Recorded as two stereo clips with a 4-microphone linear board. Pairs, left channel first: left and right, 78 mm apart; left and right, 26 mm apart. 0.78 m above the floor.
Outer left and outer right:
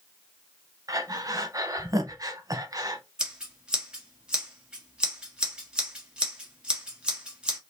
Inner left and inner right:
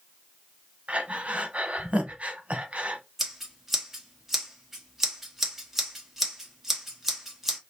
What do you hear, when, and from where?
0.9 s breathing: 50° right (ahead or behind), 0.9 m
3.2 s scissors: 15° right (ahead or behind), 1.4 m